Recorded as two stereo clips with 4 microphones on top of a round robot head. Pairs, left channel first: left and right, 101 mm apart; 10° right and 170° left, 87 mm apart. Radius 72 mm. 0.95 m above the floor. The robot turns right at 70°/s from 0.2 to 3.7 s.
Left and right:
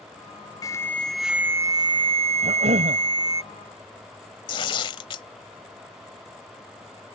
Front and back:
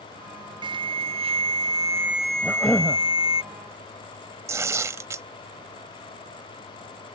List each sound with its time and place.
0.6 s an alarm: 140° left; by 3.4 s 20° right
2.4 s a cough: 115° right; by 3.0 s 75° right
4.5 s tearing paper: 120° left